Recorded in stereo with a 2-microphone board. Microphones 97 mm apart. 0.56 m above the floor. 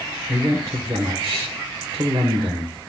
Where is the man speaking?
45° right (ahead or behind), 1.4 m.